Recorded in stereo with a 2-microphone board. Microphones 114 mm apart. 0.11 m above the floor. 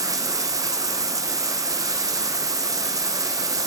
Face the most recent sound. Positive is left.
turn(degrees=-30)  # may be behind; listen again after turning